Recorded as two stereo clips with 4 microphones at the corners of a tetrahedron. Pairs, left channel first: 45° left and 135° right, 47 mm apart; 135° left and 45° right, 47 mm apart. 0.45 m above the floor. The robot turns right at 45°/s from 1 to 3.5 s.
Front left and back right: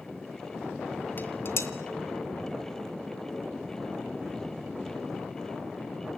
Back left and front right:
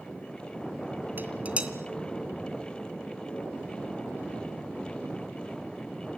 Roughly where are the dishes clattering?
Ahead.